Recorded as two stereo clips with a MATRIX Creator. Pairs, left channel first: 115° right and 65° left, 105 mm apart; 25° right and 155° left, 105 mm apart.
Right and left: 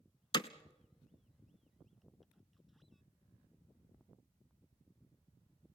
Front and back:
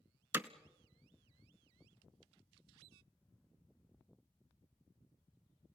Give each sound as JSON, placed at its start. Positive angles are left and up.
{"t": 0.3, "sound": "hammering", "azimuth_deg": -140, "distance_m": 0.8}